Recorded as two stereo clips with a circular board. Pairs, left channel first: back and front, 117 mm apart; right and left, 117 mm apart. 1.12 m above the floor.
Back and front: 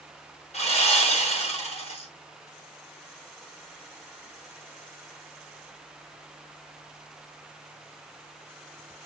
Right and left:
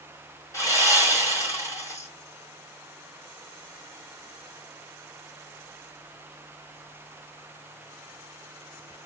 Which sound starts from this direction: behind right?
Sawing, at 0.5 s.